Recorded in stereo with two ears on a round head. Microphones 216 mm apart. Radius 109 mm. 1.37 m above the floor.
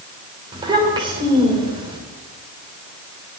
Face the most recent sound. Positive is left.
turn(degrees=-20)  # may be behind; listen again after turning